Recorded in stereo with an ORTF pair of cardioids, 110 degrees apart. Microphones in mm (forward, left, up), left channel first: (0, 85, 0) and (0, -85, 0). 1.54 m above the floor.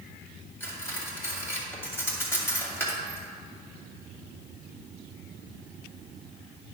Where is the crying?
No crying in this recording.